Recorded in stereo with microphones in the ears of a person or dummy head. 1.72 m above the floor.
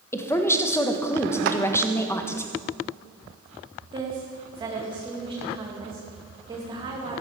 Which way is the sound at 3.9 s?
25° right (ahead or behind).